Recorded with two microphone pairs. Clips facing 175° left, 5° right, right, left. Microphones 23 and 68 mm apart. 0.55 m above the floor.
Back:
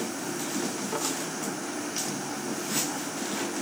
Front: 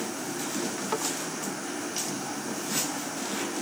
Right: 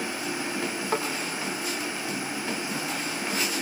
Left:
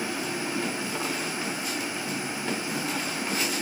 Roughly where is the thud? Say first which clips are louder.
Front 3 dB, right 4 dB; ahead right.